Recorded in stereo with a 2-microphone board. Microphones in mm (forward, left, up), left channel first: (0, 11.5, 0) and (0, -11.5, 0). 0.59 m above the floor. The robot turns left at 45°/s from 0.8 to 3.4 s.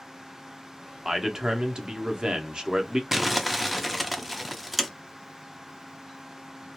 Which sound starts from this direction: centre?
Crumpling, at 3.1 s.